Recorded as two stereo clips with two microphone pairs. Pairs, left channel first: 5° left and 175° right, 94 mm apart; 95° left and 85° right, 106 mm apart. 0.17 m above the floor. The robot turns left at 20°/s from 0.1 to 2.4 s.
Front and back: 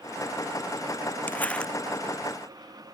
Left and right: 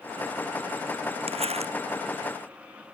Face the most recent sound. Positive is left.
turn(degrees=-90)